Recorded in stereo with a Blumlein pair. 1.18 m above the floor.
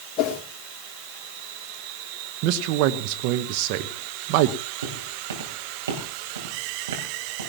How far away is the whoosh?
About 1.7 m.